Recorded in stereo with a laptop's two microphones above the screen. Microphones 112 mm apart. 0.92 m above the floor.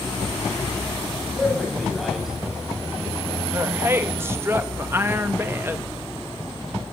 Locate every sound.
1.4 s a man speaking: 5° left (ahead or behind), 5 m; by 3.4 s 10° right (ahead or behind), 5 m
3.5 s a woman speaking: 20° right (ahead or behind), 0.8 m